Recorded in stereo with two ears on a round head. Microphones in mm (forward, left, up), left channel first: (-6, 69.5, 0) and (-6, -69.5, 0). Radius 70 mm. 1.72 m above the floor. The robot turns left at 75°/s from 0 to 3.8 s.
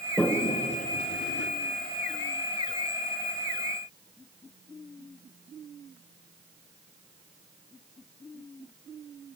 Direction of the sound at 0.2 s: 5° left (ahead or behind).